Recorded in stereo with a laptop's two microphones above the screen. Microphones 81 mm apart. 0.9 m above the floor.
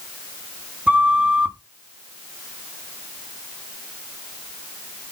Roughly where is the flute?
Centre.